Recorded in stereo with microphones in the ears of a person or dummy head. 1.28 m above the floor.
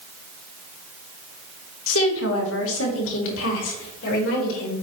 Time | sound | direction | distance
1.9 | a woman speaking | 80° left | 1.6 m